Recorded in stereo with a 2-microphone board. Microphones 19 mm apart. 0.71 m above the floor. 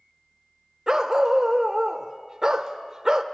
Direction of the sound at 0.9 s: 25° right (ahead or behind).